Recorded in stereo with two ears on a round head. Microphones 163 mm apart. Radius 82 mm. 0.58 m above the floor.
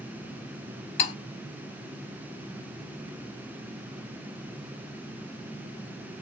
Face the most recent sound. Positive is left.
turn(degrees=30)  # may be behind; listen again after turning